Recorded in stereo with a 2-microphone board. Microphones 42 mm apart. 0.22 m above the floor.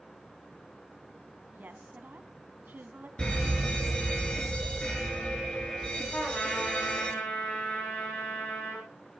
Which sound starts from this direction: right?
A woman speaking, at 1.5 s.